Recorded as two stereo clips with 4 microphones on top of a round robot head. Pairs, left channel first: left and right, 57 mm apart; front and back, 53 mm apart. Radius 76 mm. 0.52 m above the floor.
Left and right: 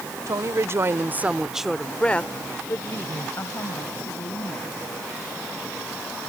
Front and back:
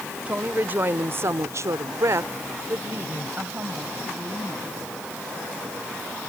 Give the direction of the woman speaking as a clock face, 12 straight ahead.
4 o'clock.